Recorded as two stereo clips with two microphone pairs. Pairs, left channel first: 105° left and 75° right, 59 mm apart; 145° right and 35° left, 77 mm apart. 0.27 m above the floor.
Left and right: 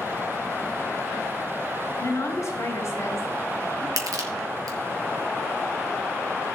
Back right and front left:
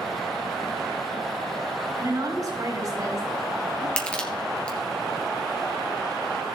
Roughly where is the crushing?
Right.